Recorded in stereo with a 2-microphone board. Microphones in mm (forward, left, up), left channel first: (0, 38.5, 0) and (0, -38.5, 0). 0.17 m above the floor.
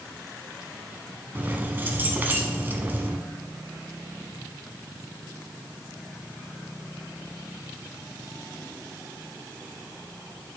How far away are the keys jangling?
About 1.0 m.